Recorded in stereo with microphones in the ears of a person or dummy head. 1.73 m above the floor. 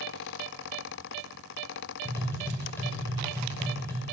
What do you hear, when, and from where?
2.0 s tapping: 20° left (ahead or behind), 1.2 m